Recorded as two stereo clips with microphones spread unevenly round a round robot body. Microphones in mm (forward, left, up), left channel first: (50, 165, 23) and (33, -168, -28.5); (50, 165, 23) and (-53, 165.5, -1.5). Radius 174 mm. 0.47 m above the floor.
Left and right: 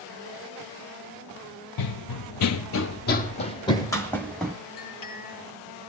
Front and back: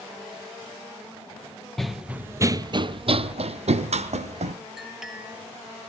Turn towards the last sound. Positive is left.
turn(degrees=95)